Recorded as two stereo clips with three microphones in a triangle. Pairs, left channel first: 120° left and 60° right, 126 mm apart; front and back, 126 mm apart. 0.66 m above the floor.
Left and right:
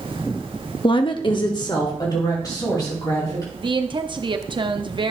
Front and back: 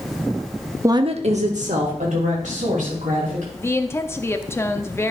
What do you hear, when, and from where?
0.8 s a woman speaking: 125° left, 0.6 m; by 3.4 s straight behind, 4 m
3.5 s a woman speaking: 60° right, 0.7 m